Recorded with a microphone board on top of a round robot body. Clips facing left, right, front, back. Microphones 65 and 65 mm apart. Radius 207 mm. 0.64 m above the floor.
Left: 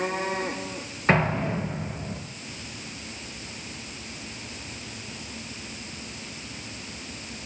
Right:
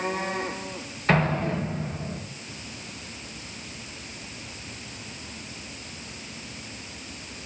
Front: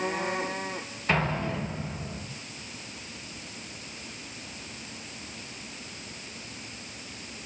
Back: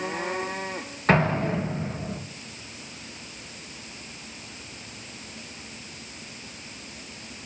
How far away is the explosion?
About 6 m.